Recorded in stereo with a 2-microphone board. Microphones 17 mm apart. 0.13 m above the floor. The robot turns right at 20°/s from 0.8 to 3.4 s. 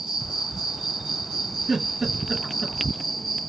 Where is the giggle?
45° right (ahead or behind), 2 m; by 2.8 s 35° right (ahead or behind), 2 m.